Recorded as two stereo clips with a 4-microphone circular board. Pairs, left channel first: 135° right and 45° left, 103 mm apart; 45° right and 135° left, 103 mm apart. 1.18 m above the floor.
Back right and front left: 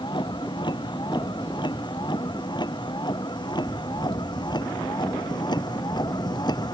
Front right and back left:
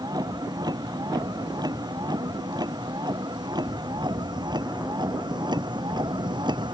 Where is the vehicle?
175° right; by 6.8 s straight behind.